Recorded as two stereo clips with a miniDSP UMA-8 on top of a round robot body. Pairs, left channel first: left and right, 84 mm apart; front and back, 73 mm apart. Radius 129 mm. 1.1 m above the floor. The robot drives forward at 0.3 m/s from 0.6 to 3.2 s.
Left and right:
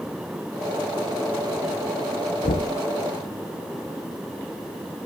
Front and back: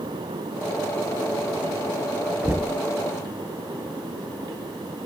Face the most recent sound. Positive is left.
turn(degrees=115)